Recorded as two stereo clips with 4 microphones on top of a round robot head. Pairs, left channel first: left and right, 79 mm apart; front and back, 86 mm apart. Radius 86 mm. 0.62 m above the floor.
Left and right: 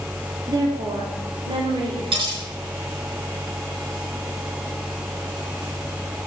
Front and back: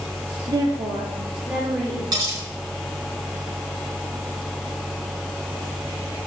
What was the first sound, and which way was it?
A woman speaking, 135° right.